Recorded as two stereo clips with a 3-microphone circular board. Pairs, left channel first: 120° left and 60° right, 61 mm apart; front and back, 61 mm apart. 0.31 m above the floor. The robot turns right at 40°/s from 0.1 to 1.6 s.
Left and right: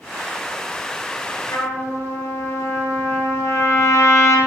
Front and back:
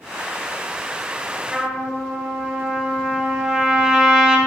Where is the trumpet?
105° left, 2.5 m; by 4.4 s 110° left, 2.5 m.